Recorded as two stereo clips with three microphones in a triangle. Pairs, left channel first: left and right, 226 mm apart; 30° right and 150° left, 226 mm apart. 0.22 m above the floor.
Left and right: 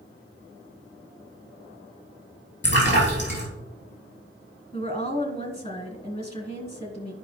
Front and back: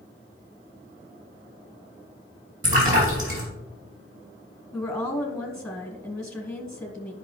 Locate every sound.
2.6 s a splash: 125° left, 3 m
4.7 s a woman speaking: 50° left, 1.1 m